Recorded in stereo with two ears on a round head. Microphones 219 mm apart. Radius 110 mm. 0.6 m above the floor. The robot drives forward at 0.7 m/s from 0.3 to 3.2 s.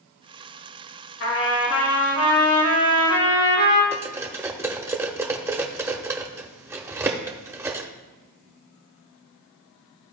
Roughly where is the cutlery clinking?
Centre.